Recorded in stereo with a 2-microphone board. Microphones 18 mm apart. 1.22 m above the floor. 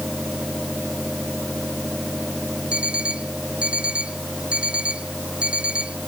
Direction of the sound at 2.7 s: 80° right.